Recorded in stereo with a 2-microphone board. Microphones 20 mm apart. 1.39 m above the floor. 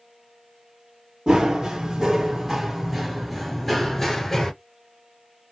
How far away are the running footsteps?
About 1.8 m.